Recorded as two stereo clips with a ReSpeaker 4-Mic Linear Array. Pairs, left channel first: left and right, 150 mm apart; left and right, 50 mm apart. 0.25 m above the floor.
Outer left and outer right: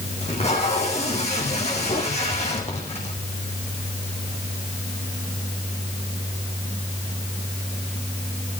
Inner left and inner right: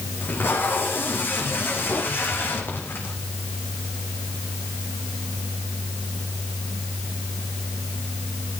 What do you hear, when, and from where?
0.2 s tape being pulled: 45° left (ahead or behind), 5.5 m